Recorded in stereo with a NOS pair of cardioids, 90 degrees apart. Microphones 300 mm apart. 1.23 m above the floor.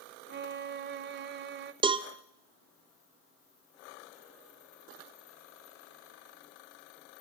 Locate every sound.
0.3 s a violin: 35° right, 0.7 m
1.8 s a cowbell: 15° right, 0.5 m